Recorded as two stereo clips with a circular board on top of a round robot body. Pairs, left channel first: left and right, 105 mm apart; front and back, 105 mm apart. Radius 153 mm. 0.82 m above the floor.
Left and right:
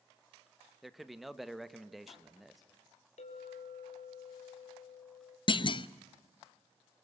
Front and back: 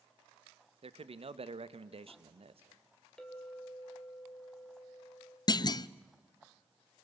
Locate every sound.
0.8 s a man speaking: straight behind, 1.3 m
3.2 s a clink: 80° left, 3 m
5.5 s a clunk: 50° left, 0.6 m